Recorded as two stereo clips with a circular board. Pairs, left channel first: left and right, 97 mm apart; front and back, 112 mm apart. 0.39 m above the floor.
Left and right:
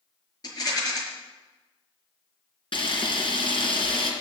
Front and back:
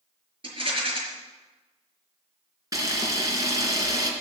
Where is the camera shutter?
120° left, 3 m.